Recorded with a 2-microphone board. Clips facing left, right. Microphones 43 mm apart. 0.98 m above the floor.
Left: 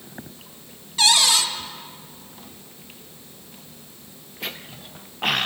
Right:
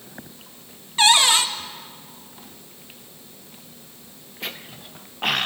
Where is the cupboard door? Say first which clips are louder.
Right 3 dB; 30° right (ahead or behind), 1.4 m.